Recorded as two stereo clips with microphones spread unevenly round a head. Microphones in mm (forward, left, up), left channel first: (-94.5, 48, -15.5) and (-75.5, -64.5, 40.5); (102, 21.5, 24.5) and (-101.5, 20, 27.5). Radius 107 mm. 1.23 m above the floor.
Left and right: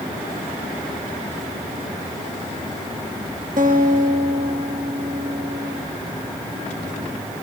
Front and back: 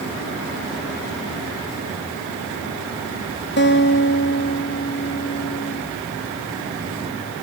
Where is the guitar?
45° right, 1.8 m.